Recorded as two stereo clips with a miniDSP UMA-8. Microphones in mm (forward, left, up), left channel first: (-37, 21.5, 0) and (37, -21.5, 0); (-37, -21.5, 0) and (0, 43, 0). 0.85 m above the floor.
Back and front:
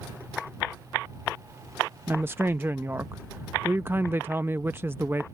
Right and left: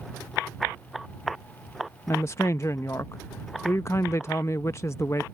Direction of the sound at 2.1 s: 85° right.